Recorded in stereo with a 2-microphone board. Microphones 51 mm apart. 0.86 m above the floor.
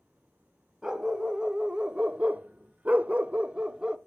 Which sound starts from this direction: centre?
A dog barking, at 0.8 s.